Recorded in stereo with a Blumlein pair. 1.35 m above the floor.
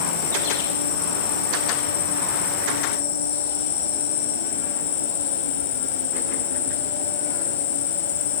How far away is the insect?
About 4.5 m.